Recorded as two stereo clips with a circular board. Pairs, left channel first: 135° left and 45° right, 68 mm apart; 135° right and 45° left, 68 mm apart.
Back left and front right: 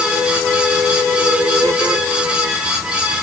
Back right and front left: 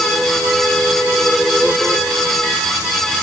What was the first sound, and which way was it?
Only background noise.